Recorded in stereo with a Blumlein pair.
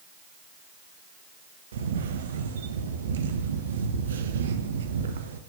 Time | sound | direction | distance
1.7 | a camera shutter | 65° right | 0.5 m